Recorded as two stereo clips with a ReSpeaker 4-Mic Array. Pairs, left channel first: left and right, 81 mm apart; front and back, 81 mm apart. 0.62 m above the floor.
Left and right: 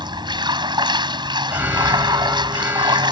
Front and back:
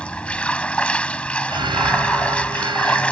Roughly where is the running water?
Right.